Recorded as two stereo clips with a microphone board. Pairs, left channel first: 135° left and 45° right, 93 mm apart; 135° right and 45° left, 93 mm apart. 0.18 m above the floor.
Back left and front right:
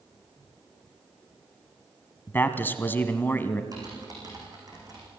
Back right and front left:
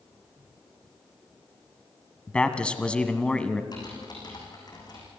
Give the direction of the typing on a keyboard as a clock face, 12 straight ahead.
3 o'clock.